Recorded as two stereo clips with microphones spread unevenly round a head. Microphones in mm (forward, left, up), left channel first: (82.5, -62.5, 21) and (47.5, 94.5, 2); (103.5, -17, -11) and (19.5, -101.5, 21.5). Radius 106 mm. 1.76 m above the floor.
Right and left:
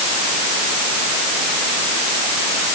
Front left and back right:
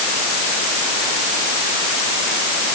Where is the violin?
I don't hear a violin.